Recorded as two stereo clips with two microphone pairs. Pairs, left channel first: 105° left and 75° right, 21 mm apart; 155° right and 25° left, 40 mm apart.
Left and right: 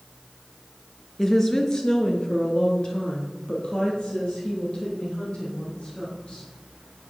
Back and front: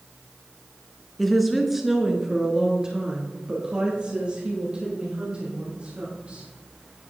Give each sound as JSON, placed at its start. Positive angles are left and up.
{"t": 1.2, "sound": "a woman speaking", "azimuth_deg": 125, "distance_m": 1.1}